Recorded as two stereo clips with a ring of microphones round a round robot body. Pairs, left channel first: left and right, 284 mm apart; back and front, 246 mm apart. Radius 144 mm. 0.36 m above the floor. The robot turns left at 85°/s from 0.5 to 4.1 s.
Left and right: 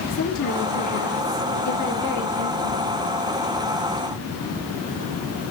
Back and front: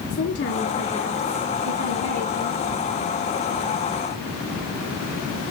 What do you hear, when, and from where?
0.1 s a woman speaking: 135° left, 5.5 m; by 2.8 s 65° right, 5.5 m